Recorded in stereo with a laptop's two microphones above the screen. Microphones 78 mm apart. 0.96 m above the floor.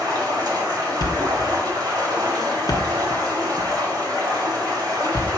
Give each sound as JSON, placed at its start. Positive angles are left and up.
{"t": 0.0, "sound": "running water", "side_deg": -65, "distance_m": 2.5}
{"t": 1.0, "sound": "a thud", "side_deg": 60, "distance_m": 0.8}